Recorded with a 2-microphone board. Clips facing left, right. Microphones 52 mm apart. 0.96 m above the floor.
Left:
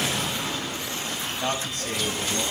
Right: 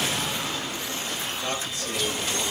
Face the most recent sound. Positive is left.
turn(degrees=50)  # may be behind; listen again after turning